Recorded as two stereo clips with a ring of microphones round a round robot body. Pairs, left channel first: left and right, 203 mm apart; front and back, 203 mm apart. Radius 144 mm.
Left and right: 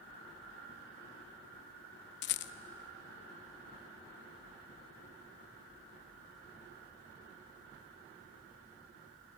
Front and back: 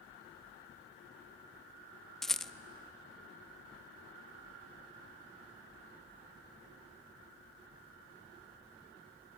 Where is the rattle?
90° left, 0.5 m.